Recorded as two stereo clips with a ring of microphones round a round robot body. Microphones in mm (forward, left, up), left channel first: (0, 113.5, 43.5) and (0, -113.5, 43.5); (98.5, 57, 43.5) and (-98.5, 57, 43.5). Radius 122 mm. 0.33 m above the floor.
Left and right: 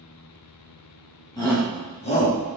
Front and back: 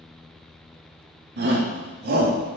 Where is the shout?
160° left, 3 m; by 2.4 s 145° left, 3 m.